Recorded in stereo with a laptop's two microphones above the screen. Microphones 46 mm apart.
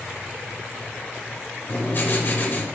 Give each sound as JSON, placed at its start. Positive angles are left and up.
{"t": 1.7, "sound": "writing", "side_deg": 45, "distance_m": 1.1}